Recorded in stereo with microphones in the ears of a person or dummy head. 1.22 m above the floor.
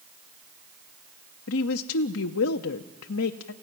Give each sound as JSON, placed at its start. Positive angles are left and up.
{"t": 1.5, "sound": "a woman speaking", "side_deg": 65, "distance_m": 0.6}